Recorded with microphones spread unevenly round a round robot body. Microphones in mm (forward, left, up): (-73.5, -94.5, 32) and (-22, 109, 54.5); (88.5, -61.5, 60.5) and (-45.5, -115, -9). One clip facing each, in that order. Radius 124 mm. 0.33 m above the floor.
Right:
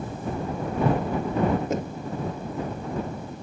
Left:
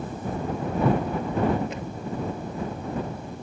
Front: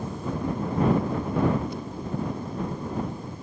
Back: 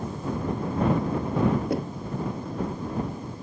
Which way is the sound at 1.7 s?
150° right.